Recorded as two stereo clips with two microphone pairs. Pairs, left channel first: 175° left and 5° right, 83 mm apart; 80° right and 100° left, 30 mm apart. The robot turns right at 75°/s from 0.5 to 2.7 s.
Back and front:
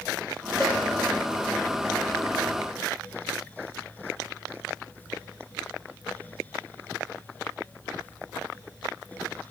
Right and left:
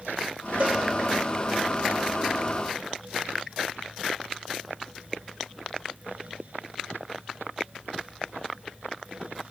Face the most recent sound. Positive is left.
turn(degrees=-90)